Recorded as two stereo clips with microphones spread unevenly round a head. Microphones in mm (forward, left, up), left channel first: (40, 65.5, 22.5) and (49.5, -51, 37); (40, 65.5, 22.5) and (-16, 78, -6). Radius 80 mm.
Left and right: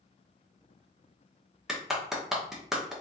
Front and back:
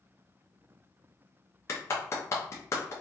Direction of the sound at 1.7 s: Straight ahead.